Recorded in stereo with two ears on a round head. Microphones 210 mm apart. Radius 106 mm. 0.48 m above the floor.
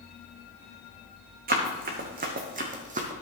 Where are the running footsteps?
40° right (ahead or behind), 2 m; by 3.1 s 35° right (ahead or behind), 1.3 m.